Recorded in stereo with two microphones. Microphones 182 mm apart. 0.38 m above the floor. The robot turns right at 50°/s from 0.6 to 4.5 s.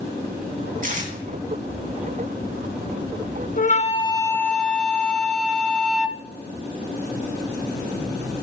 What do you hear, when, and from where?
0.8 s tape being pulled: 50° right (ahead or behind), 3 m; by 1.1 s 40° right (ahead or behind), 3 m
3.6 s a flute: 130° left, 0.7 m; by 6.2 s 175° left, 0.7 m